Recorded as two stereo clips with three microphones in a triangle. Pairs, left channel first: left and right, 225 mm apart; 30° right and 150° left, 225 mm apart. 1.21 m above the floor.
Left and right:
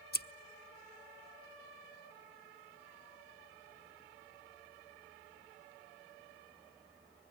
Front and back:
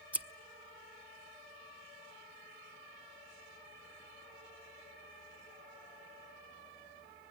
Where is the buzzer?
I don't hear a buzzer.